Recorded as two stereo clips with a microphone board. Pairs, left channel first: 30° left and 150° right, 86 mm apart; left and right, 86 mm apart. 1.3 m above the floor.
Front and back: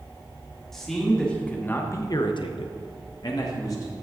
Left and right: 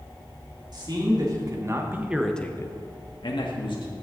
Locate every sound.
0.7 s a man speaking: 55° right, 2.5 m; by 3.9 s 80° left, 2 m